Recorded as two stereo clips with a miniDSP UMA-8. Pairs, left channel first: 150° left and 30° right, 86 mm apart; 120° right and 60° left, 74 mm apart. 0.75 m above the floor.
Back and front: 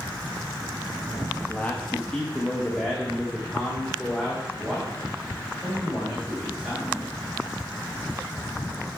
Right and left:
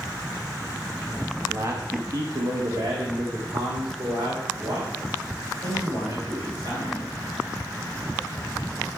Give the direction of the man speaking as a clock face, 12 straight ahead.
9 o'clock.